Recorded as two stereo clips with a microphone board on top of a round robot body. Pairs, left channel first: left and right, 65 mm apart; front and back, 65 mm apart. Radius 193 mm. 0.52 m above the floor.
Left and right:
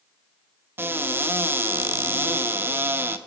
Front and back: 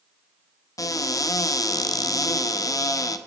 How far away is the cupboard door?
About 0.8 m.